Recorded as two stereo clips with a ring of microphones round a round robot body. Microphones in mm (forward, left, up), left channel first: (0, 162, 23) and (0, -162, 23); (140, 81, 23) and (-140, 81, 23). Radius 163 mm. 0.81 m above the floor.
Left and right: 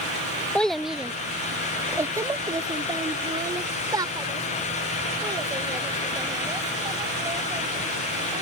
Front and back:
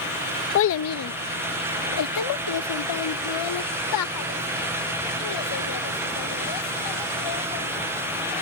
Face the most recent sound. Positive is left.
turn(degrees=-10)